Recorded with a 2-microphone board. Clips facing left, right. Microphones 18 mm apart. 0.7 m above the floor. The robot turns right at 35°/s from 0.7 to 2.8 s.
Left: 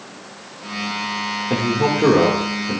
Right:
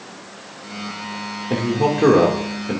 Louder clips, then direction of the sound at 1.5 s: Even; 170° left.